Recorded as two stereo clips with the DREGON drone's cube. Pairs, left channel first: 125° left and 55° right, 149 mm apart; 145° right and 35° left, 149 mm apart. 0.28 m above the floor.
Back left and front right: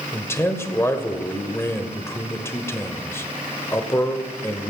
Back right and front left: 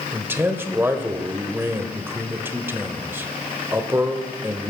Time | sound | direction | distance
0.1 | a man speaking | 85° left | 1.1 m